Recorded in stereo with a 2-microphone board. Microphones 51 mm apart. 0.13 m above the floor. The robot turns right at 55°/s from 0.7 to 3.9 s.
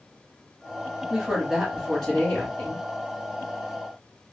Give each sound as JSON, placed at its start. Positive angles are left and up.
{"t": 1.1, "sound": "a woman speaking", "azimuth_deg": -35, "distance_m": 1.7}